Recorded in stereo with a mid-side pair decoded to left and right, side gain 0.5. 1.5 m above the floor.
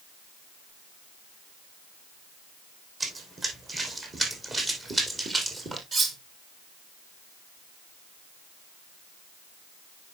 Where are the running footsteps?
30° right, 5 m; by 5.8 s 25° right, 3 m.